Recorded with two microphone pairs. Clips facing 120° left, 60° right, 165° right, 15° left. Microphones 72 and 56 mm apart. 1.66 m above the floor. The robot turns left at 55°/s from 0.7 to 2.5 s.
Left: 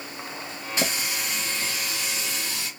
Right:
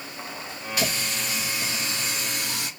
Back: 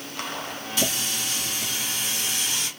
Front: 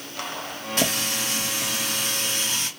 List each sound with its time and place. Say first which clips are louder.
0.8 s a running tap: even, front 3 dB; 55° left, 2 m; by 2.7 s 40° right, 2 m